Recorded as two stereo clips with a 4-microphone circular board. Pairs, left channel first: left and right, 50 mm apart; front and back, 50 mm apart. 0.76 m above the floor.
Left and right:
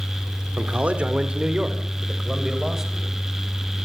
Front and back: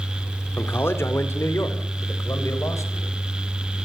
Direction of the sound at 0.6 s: 35° right.